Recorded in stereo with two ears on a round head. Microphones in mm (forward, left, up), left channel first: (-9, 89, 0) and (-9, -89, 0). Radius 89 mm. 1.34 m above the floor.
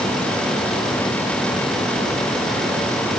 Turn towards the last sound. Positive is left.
No sound to turn to.